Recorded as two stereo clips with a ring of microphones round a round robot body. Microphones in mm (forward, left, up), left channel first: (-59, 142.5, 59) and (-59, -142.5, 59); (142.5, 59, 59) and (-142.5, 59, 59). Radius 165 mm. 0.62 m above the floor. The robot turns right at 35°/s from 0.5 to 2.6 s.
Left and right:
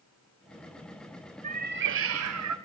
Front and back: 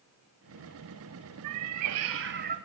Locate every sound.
1.4 s a cat meowing: 155° right, 1.3 m; by 2.6 s 115° right, 1.3 m